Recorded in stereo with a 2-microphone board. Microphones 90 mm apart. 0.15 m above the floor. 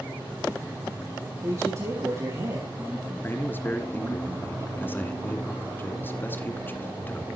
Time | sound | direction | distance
1.4 | a man speaking | 40° right (ahead or behind) | 5 m
3.2 | a man speaking | 25° left (ahead or behind) | 2.0 m